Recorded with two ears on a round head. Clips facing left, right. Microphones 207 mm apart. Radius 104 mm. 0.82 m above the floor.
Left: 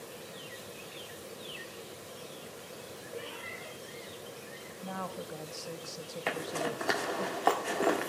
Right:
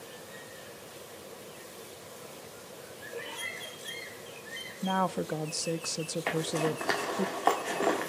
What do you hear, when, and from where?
3.1 s a cat meowing: 10° left (ahead or behind), 9 m
4.8 s a woman speaking: 70° right (ahead or behind), 0.8 m
6.3 s a zipper: 5° left (ahead or behind), 1.7 m